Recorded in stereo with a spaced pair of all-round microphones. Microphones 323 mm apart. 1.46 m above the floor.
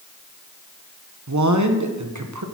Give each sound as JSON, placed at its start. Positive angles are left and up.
{"t": 1.3, "sound": "a man speaking", "side_deg": -60, "distance_m": 1.1}